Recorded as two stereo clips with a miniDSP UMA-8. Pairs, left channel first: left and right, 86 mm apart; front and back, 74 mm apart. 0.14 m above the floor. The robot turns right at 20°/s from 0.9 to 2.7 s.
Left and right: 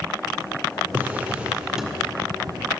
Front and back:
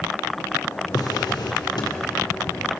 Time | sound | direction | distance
0.9 | a drawer | 25° right | 1.7 m